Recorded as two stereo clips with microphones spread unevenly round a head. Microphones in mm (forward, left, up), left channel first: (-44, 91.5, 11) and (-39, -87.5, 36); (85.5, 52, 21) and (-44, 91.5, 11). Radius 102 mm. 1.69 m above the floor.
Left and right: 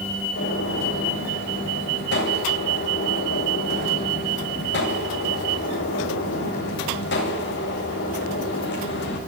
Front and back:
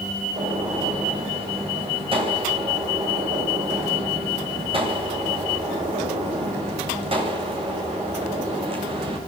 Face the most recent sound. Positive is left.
turn(degrees=115)